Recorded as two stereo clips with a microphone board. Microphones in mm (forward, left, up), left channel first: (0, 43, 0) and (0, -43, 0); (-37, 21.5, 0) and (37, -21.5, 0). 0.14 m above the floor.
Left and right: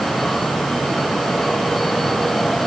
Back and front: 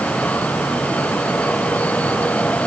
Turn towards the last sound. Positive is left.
No sound to turn to.